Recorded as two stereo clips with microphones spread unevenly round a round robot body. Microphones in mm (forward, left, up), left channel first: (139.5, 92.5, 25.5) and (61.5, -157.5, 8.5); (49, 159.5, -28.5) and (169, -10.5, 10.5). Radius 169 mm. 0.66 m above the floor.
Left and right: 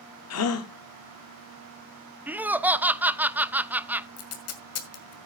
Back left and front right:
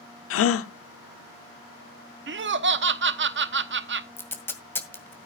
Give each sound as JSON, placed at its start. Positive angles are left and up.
{"t": 0.3, "sound": "a gasp", "azimuth_deg": 120, "distance_m": 0.7}
{"t": 2.3, "sound": "laughter", "azimuth_deg": -25, "distance_m": 0.9}
{"t": 4.2, "sound": "tape being pulled", "azimuth_deg": 45, "distance_m": 2.0}